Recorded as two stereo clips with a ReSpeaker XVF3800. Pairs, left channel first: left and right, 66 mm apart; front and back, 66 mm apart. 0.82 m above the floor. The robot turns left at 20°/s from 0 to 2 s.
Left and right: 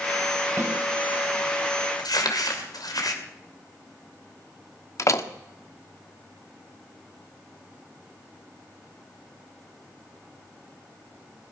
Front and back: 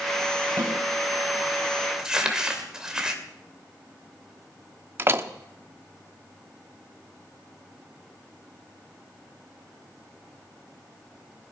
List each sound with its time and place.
0.6 s a snare drum: 140° right, 3 m; by 0.8 s 145° right, 3 m
2.0 s crumpling: 100° left, 2.5 m
5.0 s a door slam: 125° left, 0.9 m